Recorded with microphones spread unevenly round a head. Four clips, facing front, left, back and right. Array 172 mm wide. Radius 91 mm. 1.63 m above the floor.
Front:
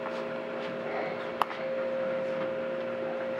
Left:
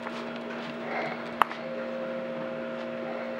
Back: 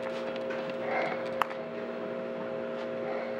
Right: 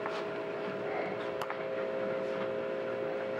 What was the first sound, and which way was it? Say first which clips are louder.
A camera shutter: left 12 dB, front 2 dB; 70° left.